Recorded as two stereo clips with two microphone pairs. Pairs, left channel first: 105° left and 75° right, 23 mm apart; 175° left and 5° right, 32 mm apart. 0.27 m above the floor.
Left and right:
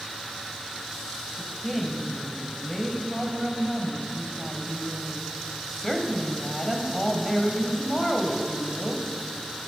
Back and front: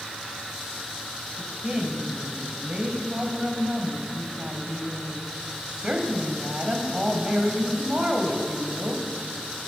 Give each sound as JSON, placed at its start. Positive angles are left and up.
{"t": 1.4, "sound": "a woman speaking", "azimuth_deg": 30, "distance_m": 1.2}